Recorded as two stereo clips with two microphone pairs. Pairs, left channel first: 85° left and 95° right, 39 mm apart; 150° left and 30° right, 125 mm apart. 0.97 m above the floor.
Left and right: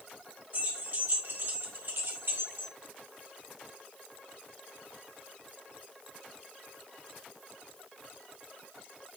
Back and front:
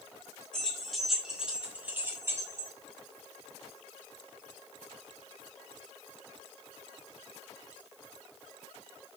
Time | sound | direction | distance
0.5 | keys jangling | 130° right | 2 m